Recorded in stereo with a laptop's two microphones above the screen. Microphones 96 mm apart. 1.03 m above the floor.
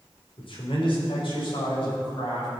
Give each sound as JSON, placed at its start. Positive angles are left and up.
{"t": 0.4, "sound": "a man speaking", "side_deg": 65, "distance_m": 2.5}